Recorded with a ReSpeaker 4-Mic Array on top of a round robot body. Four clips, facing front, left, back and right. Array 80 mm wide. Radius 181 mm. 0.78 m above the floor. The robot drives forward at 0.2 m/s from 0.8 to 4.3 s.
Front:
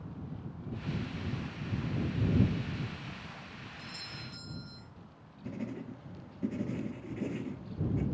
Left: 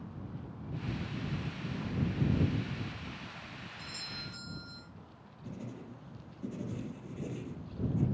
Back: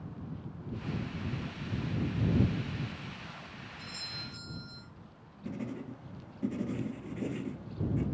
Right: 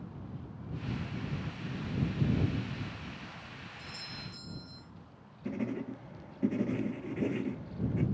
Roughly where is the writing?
Right.